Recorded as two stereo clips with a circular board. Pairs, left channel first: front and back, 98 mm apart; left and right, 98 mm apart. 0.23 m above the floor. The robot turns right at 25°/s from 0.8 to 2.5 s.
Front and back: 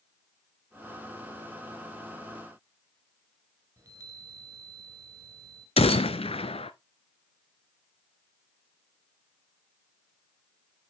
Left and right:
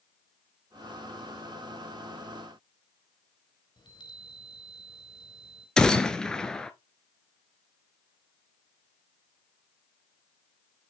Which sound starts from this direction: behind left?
A chime, at 3.8 s.